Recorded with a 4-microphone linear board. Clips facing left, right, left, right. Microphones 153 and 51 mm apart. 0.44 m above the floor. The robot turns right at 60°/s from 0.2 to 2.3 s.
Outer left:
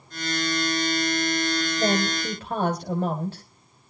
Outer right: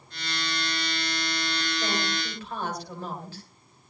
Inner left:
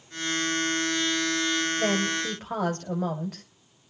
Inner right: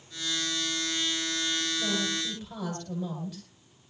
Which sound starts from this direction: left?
A woman speaking, at 1.8 s.